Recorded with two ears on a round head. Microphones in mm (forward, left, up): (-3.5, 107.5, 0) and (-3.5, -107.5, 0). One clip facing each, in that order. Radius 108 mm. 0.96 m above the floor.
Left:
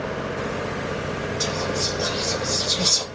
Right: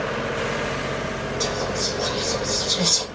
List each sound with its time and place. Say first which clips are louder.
1.4 s whispering: right 2 dB; 15° left (ahead or behind), 1.3 m